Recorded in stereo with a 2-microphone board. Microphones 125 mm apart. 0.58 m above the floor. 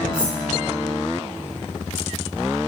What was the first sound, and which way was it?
Cutlery clinking, 10° right (ahead or behind).